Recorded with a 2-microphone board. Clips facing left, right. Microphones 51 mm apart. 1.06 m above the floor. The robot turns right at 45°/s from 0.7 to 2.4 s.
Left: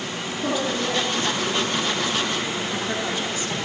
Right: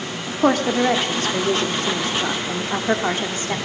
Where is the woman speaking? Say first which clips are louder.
Right 7 dB; 120° right, 2.5 m; by 3.6 s 40° right, 2.5 m.